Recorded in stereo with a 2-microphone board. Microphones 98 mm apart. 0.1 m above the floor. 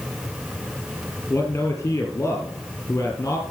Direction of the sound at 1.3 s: 20° left (ahead or behind).